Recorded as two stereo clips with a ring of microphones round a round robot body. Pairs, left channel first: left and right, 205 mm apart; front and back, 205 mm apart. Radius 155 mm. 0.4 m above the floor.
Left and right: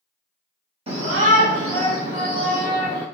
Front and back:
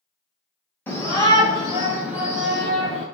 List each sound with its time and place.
0.9 s a shout: 70° right, 1.0 m; by 3.0 s 55° right, 2.5 m